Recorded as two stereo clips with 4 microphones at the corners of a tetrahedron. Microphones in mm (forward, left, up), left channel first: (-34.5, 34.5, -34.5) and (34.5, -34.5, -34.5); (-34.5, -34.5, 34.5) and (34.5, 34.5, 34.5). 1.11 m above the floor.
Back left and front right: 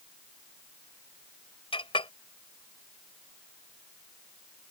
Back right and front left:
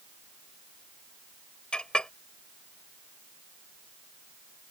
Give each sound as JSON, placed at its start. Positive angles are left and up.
{"t": 1.7, "sound": "a clink", "azimuth_deg": 145}